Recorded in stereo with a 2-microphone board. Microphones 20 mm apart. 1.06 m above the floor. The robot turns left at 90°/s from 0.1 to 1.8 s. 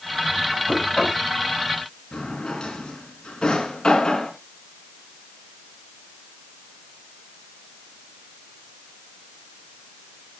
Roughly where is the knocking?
Left.